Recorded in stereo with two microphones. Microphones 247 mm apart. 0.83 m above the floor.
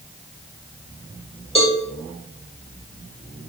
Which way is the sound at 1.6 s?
25° left (ahead or behind).